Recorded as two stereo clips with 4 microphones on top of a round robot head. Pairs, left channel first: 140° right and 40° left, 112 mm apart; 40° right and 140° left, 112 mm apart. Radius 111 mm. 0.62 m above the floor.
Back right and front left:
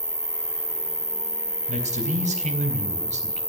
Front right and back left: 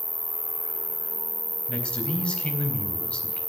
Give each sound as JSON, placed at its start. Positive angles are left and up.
{"t": 0.0, "sound": "an insect", "azimuth_deg": 50, "distance_m": 1.1}
{"t": 1.7, "sound": "a man speaking", "azimuth_deg": 40, "distance_m": 3.5}